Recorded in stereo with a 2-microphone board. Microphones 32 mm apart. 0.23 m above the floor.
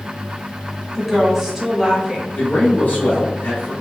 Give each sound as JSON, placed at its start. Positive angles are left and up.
{"t": 0.9, "sound": "a woman speaking", "side_deg": -5, "distance_m": 1.1}
{"t": 2.3, "sound": "a man speaking", "side_deg": 55, "distance_m": 1.6}